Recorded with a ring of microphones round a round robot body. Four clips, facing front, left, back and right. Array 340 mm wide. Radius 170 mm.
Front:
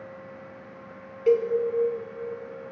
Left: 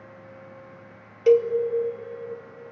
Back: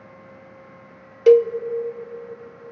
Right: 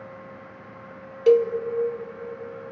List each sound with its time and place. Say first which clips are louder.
1.3 s a cowbell: even, back 8 dB; 175° right, 0.6 m